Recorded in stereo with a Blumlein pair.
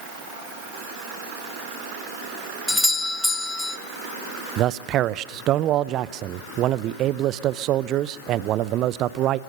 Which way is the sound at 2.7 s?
5° left.